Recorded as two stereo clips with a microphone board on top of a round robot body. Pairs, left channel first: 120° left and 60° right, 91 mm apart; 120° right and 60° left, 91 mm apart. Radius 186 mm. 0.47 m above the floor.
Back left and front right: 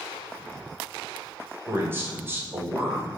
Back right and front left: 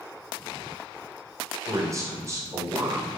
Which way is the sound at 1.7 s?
5° left.